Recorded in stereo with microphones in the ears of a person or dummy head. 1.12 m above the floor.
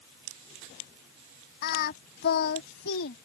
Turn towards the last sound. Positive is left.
turn(degrees=60)  # may be behind; listen again after turning